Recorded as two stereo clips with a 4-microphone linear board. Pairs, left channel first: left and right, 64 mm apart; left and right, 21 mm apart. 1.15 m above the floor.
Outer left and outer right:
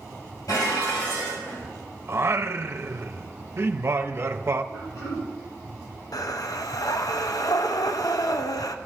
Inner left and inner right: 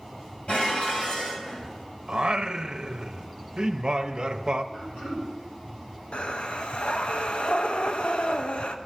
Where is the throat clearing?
55° left (ahead or behind), 5.5 m.